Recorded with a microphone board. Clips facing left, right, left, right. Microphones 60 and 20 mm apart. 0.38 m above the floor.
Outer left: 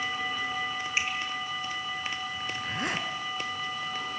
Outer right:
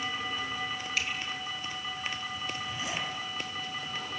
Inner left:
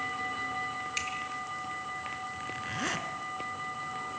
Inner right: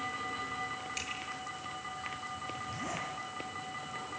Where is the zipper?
60° left (ahead or behind), 3 m.